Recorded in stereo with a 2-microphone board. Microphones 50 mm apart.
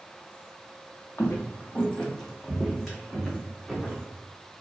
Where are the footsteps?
55° left (ahead or behind), 0.5 m; by 4.2 s 20° right (ahead or behind), 1.5 m.